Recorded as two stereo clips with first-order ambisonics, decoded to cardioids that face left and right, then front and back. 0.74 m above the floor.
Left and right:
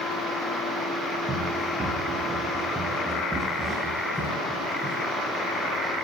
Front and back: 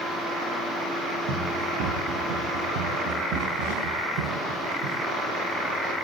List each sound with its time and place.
1.3 s running footsteps: 165° right, 9 m; by 5.0 s straight behind, 9 m